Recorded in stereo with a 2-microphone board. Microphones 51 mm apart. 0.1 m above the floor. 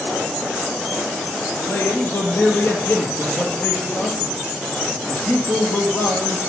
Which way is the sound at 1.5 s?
50° left (ahead or behind).